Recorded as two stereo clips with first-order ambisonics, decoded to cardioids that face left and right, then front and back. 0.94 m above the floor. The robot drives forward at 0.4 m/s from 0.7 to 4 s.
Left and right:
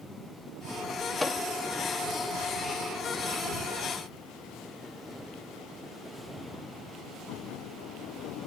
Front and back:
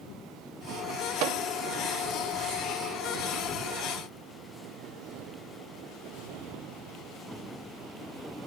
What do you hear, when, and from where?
1.2 s a microwave: 170° left; by 1.4 s 175° left